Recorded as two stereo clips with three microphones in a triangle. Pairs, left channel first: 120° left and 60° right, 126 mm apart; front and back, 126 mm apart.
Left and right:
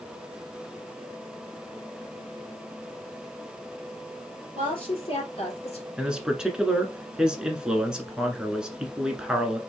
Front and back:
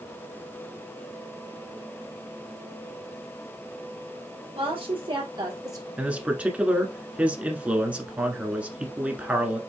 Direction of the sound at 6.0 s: 130° right.